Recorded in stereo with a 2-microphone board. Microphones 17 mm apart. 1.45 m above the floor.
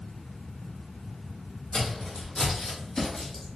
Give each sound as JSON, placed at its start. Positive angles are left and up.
{"t": 1.7, "sound": "footsteps", "side_deg": 50, "distance_m": 2.5}